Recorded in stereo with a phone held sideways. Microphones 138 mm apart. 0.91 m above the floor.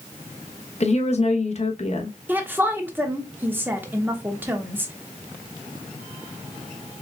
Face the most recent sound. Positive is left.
turn(degrees=-15)  # may be behind; listen again after turning